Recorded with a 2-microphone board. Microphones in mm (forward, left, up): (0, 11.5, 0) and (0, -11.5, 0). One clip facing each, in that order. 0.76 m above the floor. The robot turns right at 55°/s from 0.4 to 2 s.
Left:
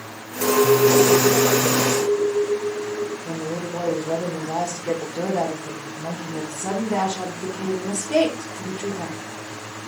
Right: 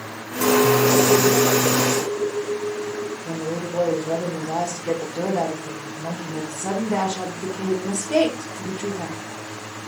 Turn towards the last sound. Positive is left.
turn(degrees=-25)  # may be behind; listen again after turning